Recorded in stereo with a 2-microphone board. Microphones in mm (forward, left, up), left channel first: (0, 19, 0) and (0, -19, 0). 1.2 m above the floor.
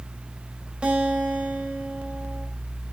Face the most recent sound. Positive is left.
turn(degrees=-25)  # may be behind; listen again after turning